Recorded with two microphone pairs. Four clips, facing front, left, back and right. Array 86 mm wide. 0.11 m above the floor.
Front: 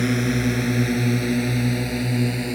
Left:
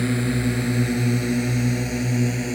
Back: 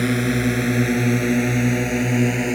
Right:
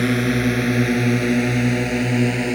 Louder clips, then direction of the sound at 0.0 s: Right 4 dB, back 1 dB; 115° right.